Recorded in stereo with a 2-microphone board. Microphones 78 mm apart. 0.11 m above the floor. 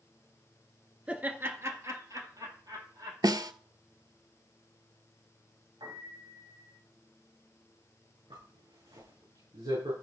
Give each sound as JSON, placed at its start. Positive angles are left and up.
{"t": 1.1, "sound": "laughter", "side_deg": -15, "distance_m": 1.5}
{"t": 3.2, "sound": "a snare drum", "side_deg": -55, "distance_m": 0.5}
{"t": 5.8, "sound": "a piano", "side_deg": -80, "distance_m": 5.5}
{"t": 8.3, "sound": "a zipper", "side_deg": -85, "distance_m": 7.5}